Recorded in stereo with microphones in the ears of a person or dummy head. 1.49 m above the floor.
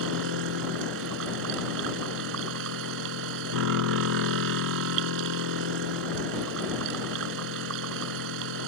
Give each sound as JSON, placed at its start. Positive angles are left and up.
{"t": 0.0, "sound": "a machine running", "side_deg": -75}